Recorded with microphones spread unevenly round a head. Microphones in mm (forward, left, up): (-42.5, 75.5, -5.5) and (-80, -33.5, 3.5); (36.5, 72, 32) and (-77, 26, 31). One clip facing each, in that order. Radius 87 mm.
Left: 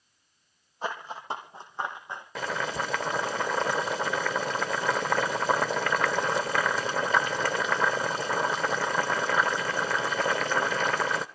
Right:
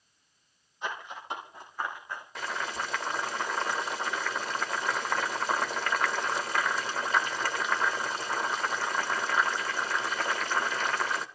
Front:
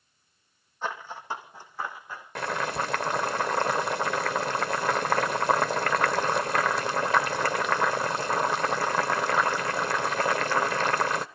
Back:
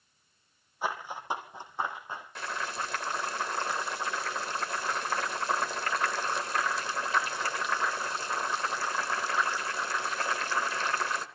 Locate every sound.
0.8 s running footsteps: 125° left, 4 m; by 2.2 s 140° left, 5.5 m
2.4 s boiling: 55° left, 1.2 m